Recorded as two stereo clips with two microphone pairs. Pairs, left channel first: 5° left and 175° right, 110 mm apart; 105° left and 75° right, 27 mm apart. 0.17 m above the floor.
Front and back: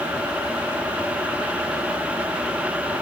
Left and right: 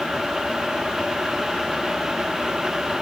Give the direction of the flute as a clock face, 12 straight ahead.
I don't hear a flute.